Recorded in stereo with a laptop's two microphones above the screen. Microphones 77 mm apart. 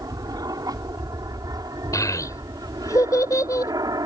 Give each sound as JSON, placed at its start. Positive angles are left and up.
{"t": 0.0, "sound": "an aircraft", "side_deg": -55}
{"t": 1.9, "sound": "a child speaking", "side_deg": 50}